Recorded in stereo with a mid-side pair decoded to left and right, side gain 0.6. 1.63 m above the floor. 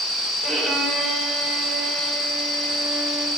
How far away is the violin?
About 3 m.